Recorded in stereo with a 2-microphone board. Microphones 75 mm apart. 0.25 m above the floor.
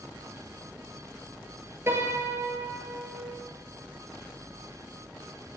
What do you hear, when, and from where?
1.9 s a piano: 35° right (ahead or behind), 1.0 m